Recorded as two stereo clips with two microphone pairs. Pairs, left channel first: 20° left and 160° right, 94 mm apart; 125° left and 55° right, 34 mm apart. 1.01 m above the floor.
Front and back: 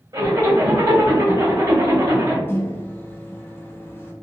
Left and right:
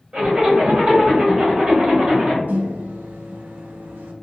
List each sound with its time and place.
0.1 s a zipper: 110° right, 1.6 m
2.5 s a microwave: 45° right, 0.5 m